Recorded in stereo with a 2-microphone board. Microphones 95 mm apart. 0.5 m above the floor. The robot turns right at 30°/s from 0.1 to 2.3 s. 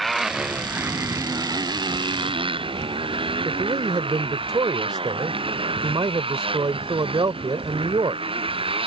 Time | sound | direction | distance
0.0 | a motorcycle | centre (ahead or behind) | ?
3.5 | a man speaking | 60° right (ahead or behind) | ?